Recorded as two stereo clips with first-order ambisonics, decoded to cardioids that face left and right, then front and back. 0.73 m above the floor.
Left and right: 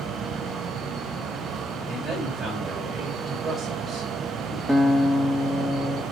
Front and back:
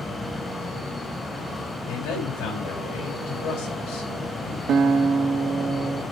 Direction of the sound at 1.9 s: 15° right.